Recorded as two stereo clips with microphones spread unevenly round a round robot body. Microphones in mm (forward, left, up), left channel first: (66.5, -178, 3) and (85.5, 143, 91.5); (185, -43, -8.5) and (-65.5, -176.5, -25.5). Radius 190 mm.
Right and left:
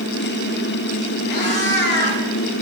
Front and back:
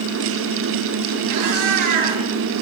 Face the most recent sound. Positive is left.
turn(degrees=-150)